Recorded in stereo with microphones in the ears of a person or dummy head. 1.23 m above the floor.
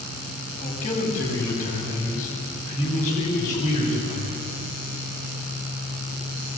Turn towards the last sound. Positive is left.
turn(degrees=40)  # may be behind; listen again after turning